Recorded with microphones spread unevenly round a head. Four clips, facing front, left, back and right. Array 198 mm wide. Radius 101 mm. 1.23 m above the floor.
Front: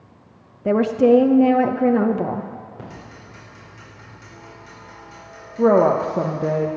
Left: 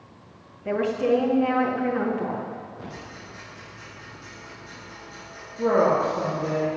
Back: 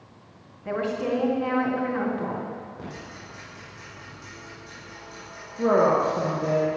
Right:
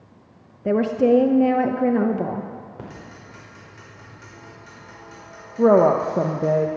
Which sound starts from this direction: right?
Ticking, at 2.8 s.